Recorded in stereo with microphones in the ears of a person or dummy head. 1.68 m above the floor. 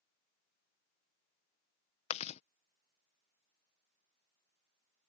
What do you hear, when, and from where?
2.1 s chewing: 35° left (ahead or behind)